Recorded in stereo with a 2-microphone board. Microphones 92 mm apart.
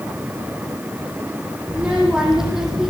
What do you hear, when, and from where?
1.7 s a child speaking: 10° right (ahead or behind), 6.5 m; by 2.9 s 5° right (ahead or behind), 6 m